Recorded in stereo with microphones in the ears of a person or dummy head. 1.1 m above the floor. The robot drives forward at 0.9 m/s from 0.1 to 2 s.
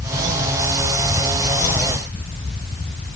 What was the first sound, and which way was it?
Only background noise.